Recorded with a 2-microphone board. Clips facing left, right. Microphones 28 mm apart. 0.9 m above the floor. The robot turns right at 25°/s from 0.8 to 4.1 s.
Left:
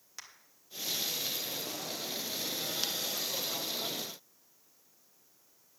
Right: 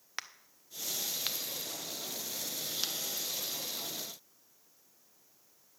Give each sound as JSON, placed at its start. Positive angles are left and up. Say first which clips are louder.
{"t": 0.2, "sound": "a crack", "louder": "right 8 dB", "side_deg": -50, "distance_m": 0.5}